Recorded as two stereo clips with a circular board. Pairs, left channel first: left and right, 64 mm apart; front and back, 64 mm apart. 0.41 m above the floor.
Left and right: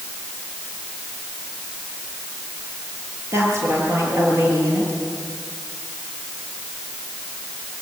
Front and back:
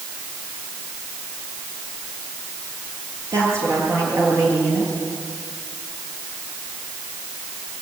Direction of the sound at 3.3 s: 140° right.